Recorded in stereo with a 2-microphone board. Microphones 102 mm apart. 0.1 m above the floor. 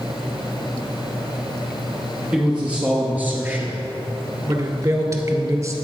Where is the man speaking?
10° right (ahead or behind), 1.9 m; by 5.7 s 35° right (ahead or behind), 1.6 m.